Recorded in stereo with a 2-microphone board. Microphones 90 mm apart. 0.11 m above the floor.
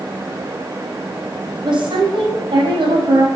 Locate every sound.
1.6 s a woman speaking: 70° right (ahead or behind), 4.5 m